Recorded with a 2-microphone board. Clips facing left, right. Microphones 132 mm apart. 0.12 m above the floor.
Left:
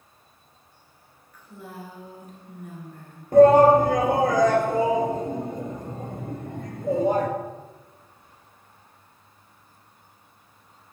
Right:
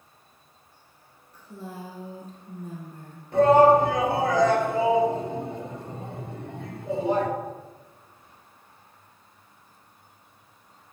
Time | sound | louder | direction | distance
1.3 | a woman speaking | right 1 dB | 30° right (ahead or behind) | 1.8 m
3.3 | a shout | left 3 dB | 45° left (ahead or behind) | 2 m